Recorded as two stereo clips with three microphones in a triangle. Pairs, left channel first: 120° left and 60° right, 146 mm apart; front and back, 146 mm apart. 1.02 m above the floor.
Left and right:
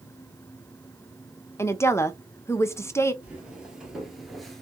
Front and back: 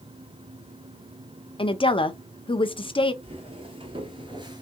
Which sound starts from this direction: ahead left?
A woman speaking, at 1.6 s.